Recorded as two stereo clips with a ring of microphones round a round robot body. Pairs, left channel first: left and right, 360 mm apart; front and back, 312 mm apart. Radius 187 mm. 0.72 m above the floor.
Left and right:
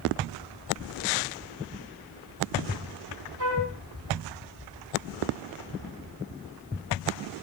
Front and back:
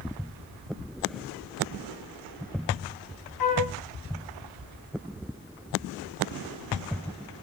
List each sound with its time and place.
3.4 s a flute: 40° right, 6 m